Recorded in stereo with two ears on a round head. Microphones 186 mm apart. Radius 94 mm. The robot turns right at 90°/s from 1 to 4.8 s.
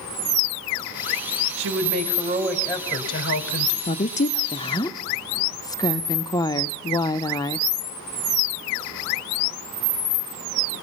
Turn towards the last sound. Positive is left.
turn(degrees=145)